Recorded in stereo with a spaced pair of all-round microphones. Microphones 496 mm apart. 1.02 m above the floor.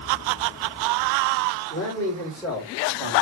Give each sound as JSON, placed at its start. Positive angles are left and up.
{"t": 1.7, "sound": "a man speaking", "side_deg": 15, "distance_m": 2.5}